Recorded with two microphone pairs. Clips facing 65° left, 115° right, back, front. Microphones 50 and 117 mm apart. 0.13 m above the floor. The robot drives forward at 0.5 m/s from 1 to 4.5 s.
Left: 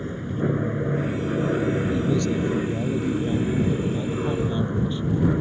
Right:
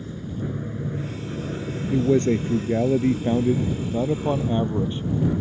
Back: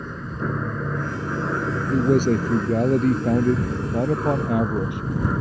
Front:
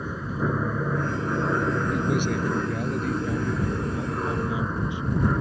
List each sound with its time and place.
0.0 s an aircraft: 80° left; by 5.4 s 95° left
1.9 s a man speaking: 150° right; by 5.0 s 165° right